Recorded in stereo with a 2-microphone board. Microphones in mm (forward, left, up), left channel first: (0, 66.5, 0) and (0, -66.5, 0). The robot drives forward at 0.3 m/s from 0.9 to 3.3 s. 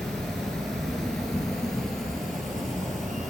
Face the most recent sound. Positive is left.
turn(degrees=0)  # may be behind; listen again after turning